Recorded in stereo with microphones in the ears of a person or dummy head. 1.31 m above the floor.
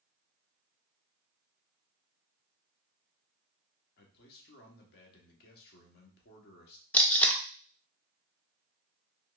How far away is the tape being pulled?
About 0.5 m.